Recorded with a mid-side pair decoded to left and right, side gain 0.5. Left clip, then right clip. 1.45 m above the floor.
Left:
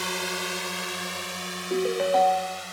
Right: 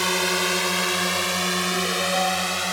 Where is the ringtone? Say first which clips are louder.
Even; 35° left.